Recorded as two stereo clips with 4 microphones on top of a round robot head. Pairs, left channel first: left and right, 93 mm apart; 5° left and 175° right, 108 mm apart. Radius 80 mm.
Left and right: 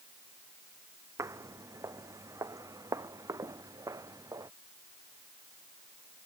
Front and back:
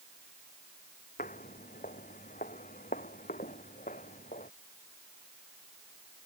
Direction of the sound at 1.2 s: 30° right.